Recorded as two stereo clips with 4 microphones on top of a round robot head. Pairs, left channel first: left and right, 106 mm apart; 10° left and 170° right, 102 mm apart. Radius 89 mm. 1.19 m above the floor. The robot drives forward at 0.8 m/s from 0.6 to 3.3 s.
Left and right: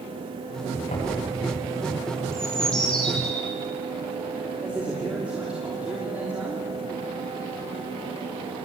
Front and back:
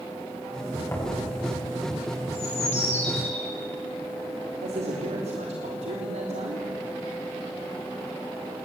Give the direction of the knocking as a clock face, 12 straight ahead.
10 o'clock.